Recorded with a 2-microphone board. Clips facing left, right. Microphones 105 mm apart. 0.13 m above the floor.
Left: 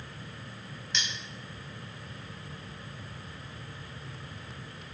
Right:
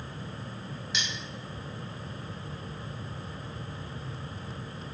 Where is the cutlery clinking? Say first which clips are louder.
Even; 5° right (ahead or behind), 0.9 m.